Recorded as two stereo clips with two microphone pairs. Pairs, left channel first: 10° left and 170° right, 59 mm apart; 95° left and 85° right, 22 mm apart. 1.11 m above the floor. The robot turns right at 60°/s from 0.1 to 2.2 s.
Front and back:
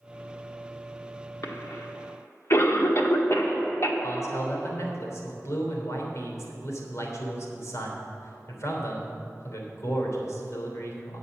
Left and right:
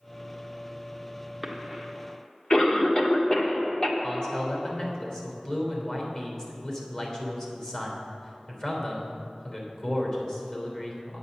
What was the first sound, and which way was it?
A cough, straight ahead.